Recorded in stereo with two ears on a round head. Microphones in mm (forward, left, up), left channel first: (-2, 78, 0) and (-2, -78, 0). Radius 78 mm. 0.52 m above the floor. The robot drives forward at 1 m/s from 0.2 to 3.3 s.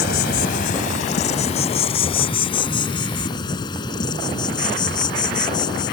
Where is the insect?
60° left (ahead or behind); by 5.9 s 25° left (ahead or behind).